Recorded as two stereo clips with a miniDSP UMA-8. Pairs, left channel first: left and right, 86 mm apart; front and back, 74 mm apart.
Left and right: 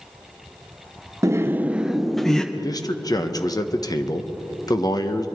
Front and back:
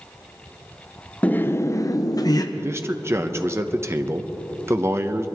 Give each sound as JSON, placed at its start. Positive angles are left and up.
{"t": 1.2, "sound": "laughter", "azimuth_deg": -60, "distance_m": 0.7}
{"t": 2.5, "sound": "a man speaking", "azimuth_deg": 130, "distance_m": 0.9}